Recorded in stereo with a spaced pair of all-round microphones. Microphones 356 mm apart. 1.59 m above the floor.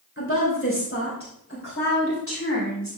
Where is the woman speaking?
35° left (ahead or behind), 3 m.